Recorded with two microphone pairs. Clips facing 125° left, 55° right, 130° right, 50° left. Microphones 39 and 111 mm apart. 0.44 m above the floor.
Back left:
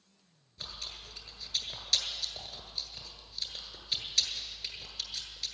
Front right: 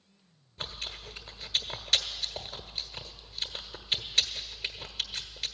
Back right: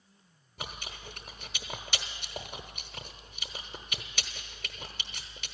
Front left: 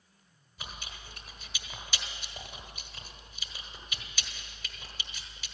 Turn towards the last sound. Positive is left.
turn(degrees=-105)